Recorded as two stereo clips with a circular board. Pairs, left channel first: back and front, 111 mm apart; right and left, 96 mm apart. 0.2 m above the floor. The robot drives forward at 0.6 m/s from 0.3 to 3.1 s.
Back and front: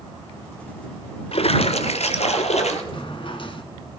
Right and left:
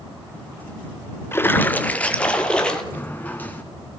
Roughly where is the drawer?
Behind right.